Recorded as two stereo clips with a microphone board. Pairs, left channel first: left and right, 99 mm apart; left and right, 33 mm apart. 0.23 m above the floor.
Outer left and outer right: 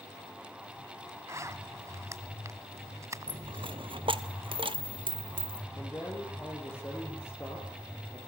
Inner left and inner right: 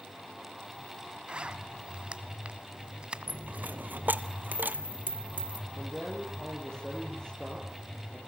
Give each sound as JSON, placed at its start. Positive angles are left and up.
{"t": 1.3, "sound": "a zipper", "side_deg": -30, "distance_m": 0.9}
{"t": 3.3, "sound": "a dropped coin", "side_deg": -60, "distance_m": 0.8}
{"t": 5.8, "sound": "a man speaking", "side_deg": 25, "distance_m": 7.0}